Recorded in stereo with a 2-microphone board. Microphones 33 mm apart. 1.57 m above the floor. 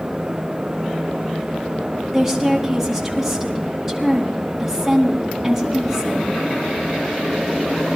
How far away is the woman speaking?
About 3.5 m.